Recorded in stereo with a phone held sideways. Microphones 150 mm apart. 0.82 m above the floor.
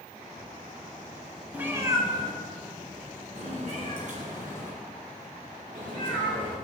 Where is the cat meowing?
10° right (ahead or behind), 1.1 m; by 6.5 s 65° right (ahead or behind), 4.5 m.